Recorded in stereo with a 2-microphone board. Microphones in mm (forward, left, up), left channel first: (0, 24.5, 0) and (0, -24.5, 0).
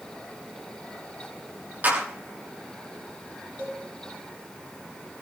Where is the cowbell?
60° right (ahead or behind), 6 m.